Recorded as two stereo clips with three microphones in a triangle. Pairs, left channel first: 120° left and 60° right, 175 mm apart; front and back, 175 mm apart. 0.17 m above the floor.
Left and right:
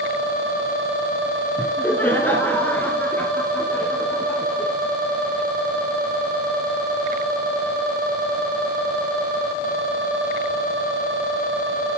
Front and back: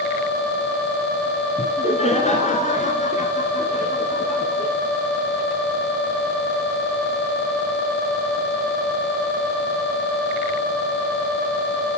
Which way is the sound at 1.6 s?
45° left.